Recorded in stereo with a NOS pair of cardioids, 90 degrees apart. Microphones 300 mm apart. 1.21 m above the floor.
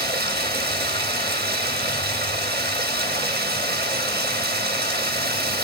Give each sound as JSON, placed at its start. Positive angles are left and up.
{"t": 0.0, "sound": "running water", "azimuth_deg": -35, "distance_m": 3.0}